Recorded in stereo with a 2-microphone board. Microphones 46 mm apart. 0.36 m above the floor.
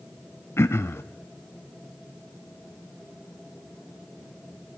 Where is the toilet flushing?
No toilet flushing in this recording.